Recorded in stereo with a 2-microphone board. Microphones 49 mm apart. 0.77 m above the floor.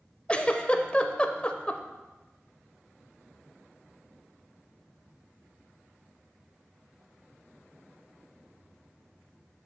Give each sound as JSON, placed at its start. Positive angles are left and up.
{"t": 0.3, "sound": "a giggle", "side_deg": 25, "distance_m": 0.5}